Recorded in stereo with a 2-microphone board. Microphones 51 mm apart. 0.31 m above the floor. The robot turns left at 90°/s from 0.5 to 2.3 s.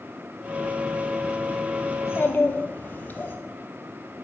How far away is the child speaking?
About 0.7 m.